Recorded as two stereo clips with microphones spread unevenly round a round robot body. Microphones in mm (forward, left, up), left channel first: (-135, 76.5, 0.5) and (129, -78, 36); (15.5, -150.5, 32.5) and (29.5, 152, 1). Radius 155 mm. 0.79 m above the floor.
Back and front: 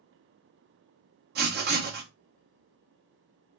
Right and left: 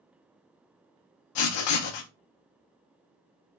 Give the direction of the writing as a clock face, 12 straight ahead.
3 o'clock.